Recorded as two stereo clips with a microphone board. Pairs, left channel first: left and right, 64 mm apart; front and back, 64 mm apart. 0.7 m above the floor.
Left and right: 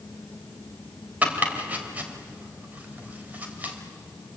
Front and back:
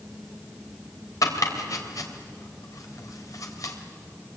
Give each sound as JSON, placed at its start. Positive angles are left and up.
{"t": 1.2, "sound": "chopping", "azimuth_deg": -25, "distance_m": 3.0}